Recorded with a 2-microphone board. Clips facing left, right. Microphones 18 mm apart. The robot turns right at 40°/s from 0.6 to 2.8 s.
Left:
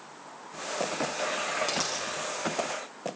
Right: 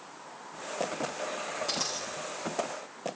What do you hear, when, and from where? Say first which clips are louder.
1.7 s a dropped coin: left 2 dB; 45° left (ahead or behind), 5 m; by 2.1 s 60° left (ahead or behind), 5 m